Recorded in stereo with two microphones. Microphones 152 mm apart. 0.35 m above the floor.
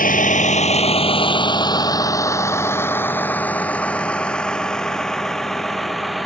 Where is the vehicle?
65° left (ahead or behind); by 6.3 s centre (ahead or behind).